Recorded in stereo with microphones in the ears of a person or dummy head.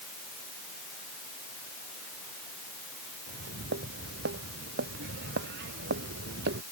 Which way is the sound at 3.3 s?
60° right (ahead or behind).